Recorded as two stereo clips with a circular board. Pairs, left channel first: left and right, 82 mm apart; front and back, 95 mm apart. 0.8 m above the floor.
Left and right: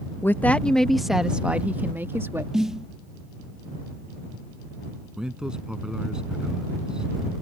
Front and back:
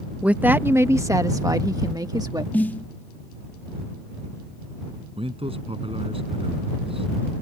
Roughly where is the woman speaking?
Behind left.